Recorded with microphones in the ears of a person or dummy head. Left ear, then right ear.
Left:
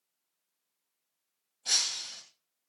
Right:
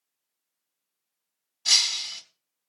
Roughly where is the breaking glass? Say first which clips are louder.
Right 8 dB; right.